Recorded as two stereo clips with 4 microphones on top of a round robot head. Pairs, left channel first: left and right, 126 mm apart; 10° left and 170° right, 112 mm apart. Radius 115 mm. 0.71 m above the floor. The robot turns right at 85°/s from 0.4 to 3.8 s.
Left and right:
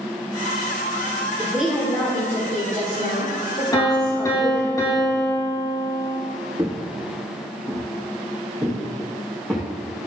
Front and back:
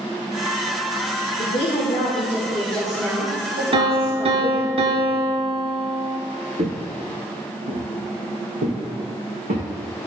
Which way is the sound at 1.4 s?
25° right.